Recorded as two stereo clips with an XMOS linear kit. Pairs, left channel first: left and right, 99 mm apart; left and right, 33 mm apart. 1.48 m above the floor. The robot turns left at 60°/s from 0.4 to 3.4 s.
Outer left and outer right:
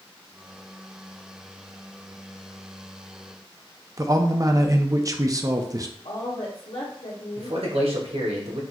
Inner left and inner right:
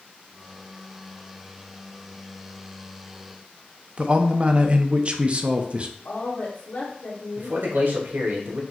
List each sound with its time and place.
4.0 s a man speaking: 35° right (ahead or behind), 0.5 m
6.0 s a woman speaking: 65° left (ahead or behind), 1.4 m
7.4 s a man speaking: 80° right, 1.3 m